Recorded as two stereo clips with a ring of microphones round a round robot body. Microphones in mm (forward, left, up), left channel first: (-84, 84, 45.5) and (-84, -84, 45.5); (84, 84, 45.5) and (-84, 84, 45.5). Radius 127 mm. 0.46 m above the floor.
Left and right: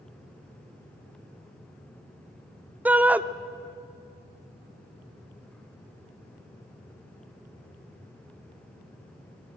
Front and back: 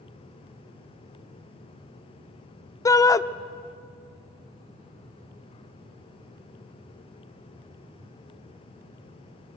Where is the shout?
25° right, 0.7 m.